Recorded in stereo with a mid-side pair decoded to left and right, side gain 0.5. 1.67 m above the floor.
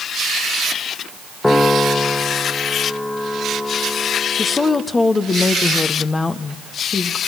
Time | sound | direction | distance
1.4 | a piano | 15° left | 1.5 m
4.4 | a woman speaking | 30° left | 1.2 m